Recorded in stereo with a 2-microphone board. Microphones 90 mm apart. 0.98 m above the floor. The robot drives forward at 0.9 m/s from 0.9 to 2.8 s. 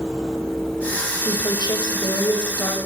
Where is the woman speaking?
55° left (ahead or behind), 5 m; by 2.8 s 45° left (ahead or behind), 6 m.